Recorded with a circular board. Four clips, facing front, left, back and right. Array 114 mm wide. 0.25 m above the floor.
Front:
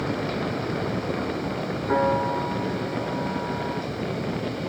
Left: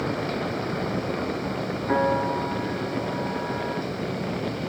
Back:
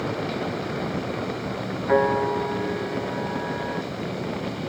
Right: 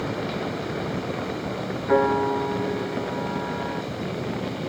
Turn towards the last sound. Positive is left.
turn(degrees=-175)